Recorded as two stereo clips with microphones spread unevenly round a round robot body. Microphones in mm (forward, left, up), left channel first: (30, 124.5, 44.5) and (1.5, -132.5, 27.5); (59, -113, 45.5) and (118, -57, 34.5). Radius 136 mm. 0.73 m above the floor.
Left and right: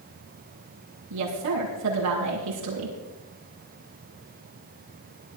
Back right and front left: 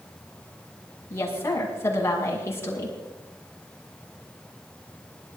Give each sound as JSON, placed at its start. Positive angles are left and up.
{"t": 1.1, "sound": "a woman speaking", "azimuth_deg": -80, "distance_m": 7.5}